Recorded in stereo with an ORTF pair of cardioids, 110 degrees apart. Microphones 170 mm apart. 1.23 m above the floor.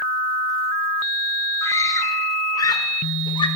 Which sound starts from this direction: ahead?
A scream, at 1.6 s.